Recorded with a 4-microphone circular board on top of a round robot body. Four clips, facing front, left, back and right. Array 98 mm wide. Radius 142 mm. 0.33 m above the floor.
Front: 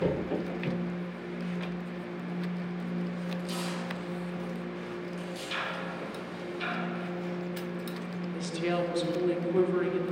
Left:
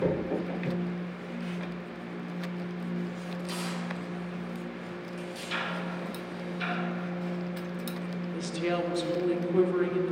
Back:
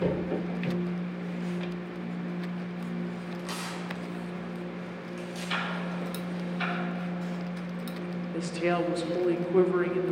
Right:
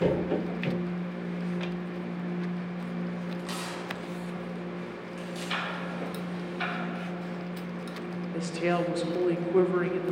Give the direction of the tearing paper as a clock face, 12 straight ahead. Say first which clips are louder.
Left 1 dB, front 1 dB; 5 o'clock.